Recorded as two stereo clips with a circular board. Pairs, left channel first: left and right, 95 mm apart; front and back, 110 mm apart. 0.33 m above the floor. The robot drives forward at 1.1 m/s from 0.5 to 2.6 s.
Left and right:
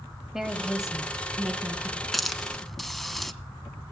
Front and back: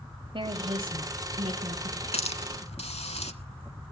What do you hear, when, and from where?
0.3 s a woman speaking: 175° right, 1.7 m
2.1 s a hiss: straight ahead, 1.5 m